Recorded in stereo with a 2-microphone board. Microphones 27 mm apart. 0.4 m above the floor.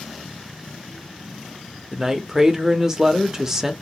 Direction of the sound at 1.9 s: 15° right (ahead or behind).